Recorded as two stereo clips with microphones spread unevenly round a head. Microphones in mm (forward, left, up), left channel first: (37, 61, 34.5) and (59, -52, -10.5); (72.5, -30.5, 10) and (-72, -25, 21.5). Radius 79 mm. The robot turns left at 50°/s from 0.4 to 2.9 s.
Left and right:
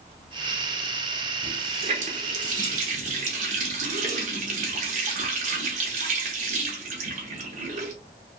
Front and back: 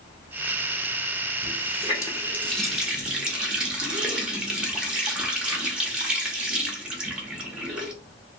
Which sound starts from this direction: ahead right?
A running tap, at 1.4 s.